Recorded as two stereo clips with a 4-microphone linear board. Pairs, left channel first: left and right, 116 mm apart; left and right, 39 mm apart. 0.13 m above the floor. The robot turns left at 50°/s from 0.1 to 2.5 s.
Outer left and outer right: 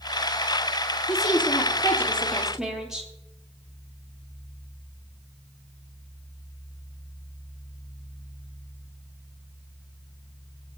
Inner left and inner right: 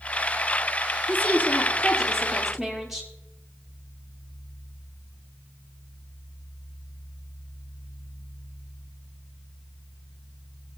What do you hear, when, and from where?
1.1 s a woman speaking: 65° left, 3 m; by 3.1 s 5° right, 3 m